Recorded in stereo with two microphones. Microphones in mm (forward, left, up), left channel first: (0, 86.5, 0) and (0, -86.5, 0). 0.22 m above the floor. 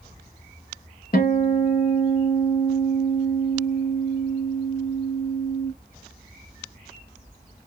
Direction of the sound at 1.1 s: 55° left (ahead or behind).